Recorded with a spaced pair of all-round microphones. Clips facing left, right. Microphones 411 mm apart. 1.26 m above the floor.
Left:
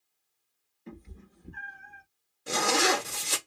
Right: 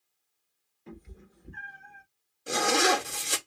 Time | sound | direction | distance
0.9 | a cat meowing | centre (ahead or behind) | 1.4 m
2.5 | a zipper | 5° left (ahead or behind) | 0.7 m